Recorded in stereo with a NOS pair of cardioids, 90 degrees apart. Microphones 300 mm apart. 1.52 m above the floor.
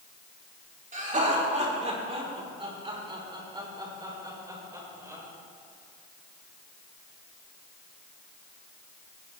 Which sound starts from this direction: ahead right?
Laughter, at 0.9 s.